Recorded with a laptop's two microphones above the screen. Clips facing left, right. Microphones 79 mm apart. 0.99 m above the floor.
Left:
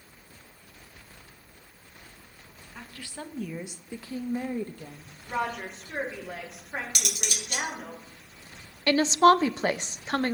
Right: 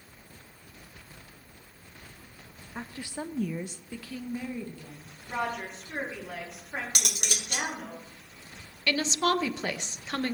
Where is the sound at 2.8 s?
30° right (ahead or behind), 0.9 m; by 5.1 s 60° left (ahead or behind), 1.1 m.